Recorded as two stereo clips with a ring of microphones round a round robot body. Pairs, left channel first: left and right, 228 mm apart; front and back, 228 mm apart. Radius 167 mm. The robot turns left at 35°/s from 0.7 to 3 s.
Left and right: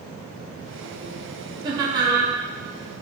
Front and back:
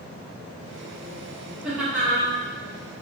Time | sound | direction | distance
1.6 | laughter | 100° right | 0.9 m